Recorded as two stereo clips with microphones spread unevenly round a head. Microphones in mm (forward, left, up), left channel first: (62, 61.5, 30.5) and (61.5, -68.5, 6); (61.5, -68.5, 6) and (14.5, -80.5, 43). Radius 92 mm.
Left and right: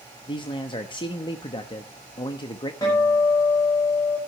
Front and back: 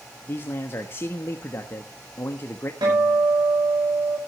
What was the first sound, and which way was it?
A man speaking, 35° left.